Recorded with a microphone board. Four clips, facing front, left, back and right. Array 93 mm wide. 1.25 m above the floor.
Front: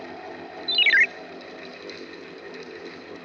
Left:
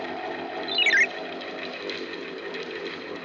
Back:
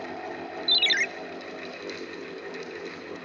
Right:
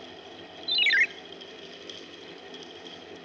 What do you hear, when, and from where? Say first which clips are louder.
0.7 s a ringtone: left 2 dB, front 9 dB; 20° left, 0.5 m